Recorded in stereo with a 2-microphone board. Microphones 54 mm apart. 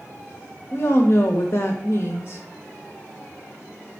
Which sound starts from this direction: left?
A woman speaking, at 0.7 s.